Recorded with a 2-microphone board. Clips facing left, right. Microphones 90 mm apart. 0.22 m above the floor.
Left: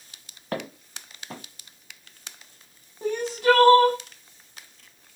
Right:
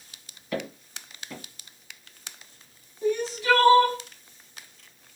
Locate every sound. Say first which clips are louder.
0.5 s footsteps: even; 60° left (ahead or behind), 1.6 m
3.0 s crying: left 3 dB; 55° left (ahead or behind), 0.8 m